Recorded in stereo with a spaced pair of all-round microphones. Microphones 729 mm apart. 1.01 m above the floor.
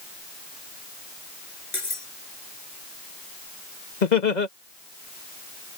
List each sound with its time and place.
1.7 s cutlery clinking: 70° left (ahead or behind)
4.0 s laughter: 75° left (ahead or behind)